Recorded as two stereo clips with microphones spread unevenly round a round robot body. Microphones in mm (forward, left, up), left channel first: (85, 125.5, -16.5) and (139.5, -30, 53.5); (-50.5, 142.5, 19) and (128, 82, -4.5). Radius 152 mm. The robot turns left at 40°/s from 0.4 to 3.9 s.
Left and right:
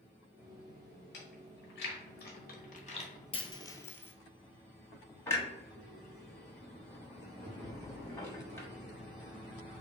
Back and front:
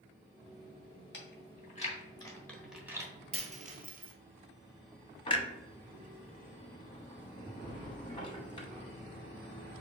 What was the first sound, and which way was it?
Chewing, 130° left.